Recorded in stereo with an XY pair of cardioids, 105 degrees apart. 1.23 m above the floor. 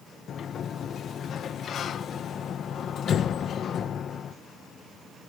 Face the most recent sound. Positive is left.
turn(degrees=60)